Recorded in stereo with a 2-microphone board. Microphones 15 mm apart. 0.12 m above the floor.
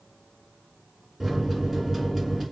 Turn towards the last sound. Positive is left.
turn(degrees=-10)  # may be behind; listen again after turning